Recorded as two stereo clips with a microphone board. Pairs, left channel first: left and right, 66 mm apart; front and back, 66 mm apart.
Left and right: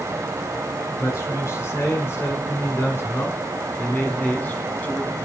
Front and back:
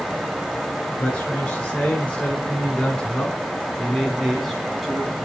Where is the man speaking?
65° left, 3 m; by 5.2 s 110° left, 1.6 m.